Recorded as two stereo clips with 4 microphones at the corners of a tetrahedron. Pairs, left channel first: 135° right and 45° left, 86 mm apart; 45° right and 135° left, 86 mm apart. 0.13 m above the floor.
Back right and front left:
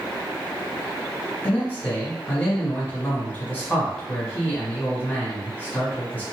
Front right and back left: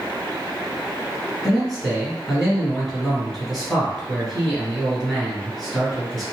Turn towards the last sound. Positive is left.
turn(degrees=-125)